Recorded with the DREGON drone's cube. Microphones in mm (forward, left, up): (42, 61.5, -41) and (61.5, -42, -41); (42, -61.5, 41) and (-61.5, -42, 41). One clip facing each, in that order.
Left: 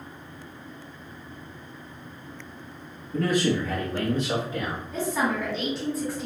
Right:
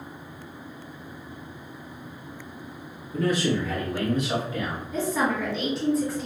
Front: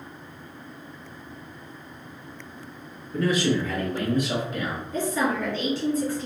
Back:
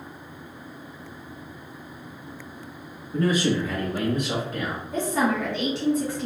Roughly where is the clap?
No clap in this recording.